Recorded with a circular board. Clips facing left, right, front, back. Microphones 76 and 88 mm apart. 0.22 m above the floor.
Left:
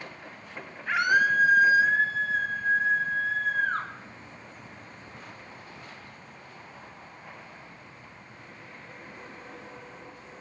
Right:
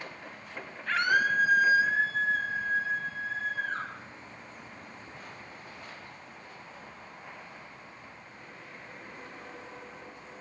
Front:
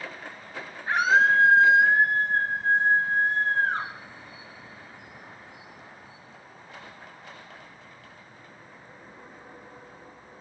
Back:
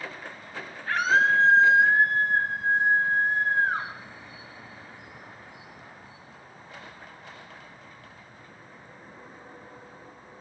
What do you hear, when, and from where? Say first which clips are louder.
0.9 s a scream: left 3 dB, front 2 dB; 30° left, 1.3 m; by 3.9 s 105° left, 3 m